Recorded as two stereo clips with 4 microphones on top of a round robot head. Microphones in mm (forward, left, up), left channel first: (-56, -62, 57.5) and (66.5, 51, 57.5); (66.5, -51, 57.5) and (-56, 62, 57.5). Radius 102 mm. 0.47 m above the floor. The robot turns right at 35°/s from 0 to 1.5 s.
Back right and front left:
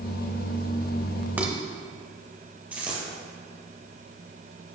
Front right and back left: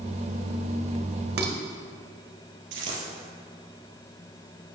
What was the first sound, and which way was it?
Dishes clattering, 125° left.